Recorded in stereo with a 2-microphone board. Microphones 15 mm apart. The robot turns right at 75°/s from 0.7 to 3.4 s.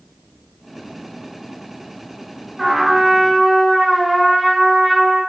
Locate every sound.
2.6 s a trumpet: 25° right (ahead or behind), 1.5 m; by 5.2 s 5° right (ahead or behind), 1.5 m